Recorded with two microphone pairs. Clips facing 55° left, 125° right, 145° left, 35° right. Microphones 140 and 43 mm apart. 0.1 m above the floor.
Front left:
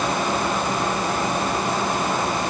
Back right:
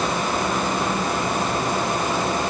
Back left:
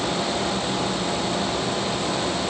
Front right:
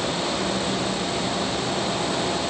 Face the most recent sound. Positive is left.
No sound to turn to.